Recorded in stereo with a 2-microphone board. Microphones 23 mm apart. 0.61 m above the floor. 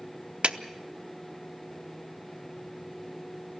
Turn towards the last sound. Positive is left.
turn(degrees=-50)  # may be behind; listen again after turning